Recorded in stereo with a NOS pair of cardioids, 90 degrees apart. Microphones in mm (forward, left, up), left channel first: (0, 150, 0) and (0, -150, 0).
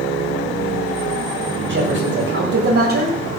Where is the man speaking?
40° right, 8.5 m; by 3.2 s 30° right, 7.5 m.